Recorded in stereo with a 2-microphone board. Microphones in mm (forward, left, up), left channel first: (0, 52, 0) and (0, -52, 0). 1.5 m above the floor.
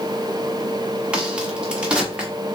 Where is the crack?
10° right (ahead or behind), 1.1 m.